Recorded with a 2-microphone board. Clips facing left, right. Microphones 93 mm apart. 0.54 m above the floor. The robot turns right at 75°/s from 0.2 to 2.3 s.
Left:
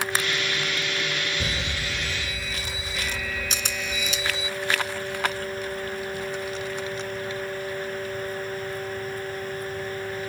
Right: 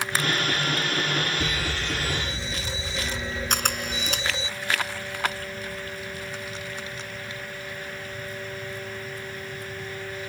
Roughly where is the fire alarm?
Behind left.